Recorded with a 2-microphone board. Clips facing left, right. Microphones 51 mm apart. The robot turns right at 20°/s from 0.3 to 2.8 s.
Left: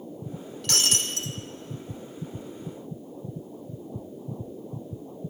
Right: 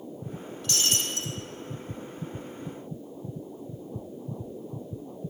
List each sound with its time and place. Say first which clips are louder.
0.6 s breaking glass: left 2 dB; 70° left (ahead or behind), 3 m; by 1.3 s 60° left (ahead or behind), 3 m